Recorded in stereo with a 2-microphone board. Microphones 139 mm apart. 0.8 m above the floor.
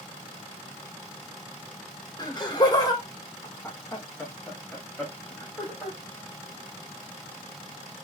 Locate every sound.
2.2 s laughter: 30° left (ahead or behind), 1.1 m; by 6.0 s centre (ahead or behind), 1.7 m